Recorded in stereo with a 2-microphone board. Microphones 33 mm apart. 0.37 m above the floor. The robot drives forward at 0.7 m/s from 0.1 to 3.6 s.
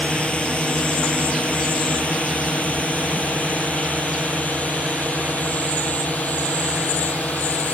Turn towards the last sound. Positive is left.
turn(degrees=55)  # may be behind; listen again after turning